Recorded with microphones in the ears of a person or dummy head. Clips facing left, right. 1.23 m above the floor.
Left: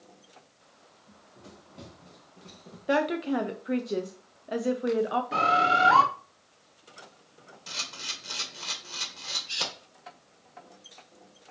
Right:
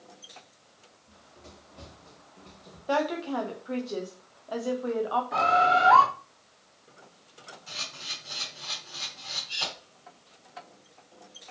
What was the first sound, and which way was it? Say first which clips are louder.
Running footsteps: left 1 dB; 15° left (ahead or behind).